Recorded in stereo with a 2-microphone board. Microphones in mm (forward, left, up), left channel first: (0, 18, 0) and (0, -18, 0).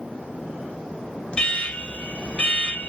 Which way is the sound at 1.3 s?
30° left (ahead or behind).